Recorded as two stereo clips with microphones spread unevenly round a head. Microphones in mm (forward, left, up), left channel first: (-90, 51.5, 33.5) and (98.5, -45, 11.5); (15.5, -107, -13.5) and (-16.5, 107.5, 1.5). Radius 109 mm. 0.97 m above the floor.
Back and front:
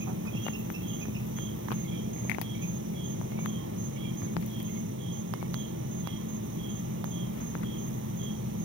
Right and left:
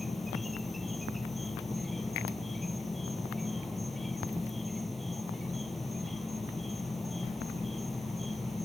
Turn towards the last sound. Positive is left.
turn(degrees=10)